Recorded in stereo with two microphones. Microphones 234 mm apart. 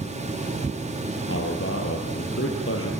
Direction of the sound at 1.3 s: 60° left (ahead or behind).